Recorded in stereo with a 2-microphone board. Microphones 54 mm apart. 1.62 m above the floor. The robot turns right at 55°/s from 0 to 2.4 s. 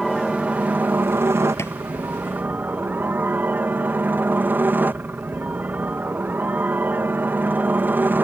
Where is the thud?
60° left (ahead or behind); by 1.8 s 50° left (ahead or behind).